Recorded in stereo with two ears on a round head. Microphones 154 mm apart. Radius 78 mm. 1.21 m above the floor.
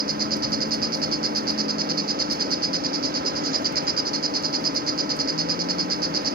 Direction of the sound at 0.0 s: 55° right (ahead or behind).